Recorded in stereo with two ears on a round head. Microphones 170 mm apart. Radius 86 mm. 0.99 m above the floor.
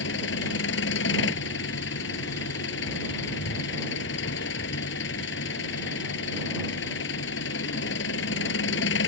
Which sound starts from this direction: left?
An engine running, at 0.0 s.